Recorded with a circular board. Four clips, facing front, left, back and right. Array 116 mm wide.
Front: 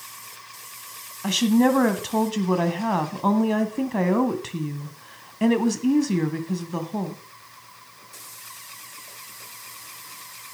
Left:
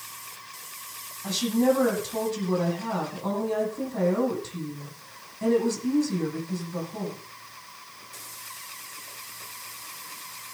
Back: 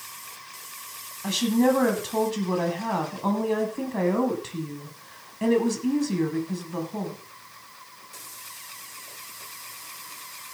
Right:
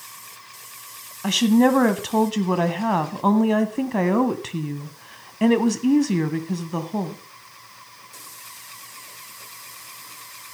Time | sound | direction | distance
1.2 | a woman speaking | 65° right | 1.6 m